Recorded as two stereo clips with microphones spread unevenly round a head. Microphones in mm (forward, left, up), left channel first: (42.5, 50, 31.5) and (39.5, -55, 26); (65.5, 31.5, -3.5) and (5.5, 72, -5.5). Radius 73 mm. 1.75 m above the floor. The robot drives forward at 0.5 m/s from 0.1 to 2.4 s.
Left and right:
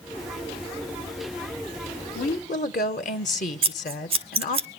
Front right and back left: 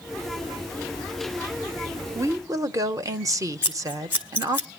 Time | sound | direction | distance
2.1 | a woman speaking | 95° left | 0.8 m
3.6 | scissors | 135° right | 1.1 m